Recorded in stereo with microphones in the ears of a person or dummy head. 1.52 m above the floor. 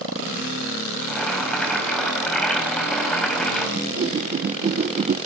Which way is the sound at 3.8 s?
40° right (ahead or behind).